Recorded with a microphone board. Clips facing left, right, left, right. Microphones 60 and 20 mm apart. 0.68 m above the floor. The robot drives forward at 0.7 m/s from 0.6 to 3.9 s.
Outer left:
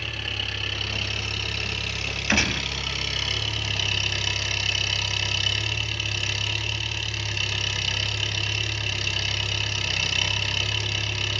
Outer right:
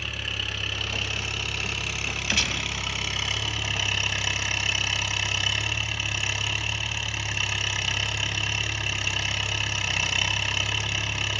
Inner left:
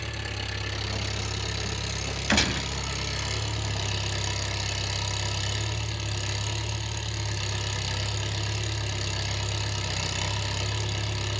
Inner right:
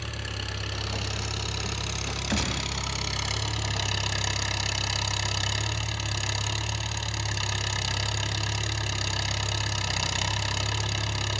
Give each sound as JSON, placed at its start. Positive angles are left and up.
{"t": 0.0, "sound": "an engine running", "side_deg": -10, "distance_m": 6.0}
{"t": 2.3, "sound": "a gunshot", "side_deg": 35, "distance_m": 3.0}